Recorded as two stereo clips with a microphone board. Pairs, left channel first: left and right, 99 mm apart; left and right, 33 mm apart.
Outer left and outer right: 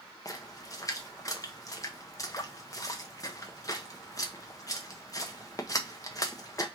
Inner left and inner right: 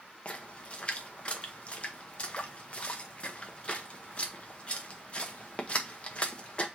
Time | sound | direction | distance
0.2 | a splash | 35° left (ahead or behind) | 0.7 m